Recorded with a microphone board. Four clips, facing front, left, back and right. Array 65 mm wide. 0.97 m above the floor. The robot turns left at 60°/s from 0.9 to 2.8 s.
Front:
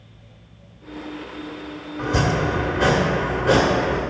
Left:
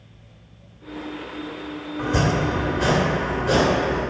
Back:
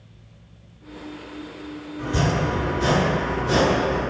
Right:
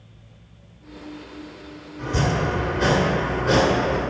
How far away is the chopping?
About 1.8 m.